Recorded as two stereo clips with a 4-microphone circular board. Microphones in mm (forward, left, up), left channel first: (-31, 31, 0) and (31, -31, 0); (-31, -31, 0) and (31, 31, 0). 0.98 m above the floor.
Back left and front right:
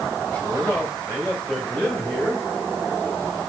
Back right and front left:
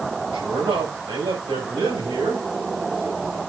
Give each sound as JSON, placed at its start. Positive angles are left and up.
{"t": 0.3, "sound": "a man speaking", "azimuth_deg": 60, "distance_m": 6.0}